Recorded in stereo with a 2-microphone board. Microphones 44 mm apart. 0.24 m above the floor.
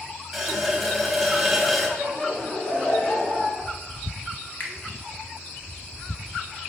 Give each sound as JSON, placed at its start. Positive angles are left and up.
{"t": 0.3, "sound": "a running tap", "side_deg": 0, "distance_m": 0.8}
{"t": 2.0, "sound": "laughter", "side_deg": 25, "distance_m": 1.4}
{"t": 4.6, "sound": "a finger snap", "side_deg": 40, "distance_m": 0.9}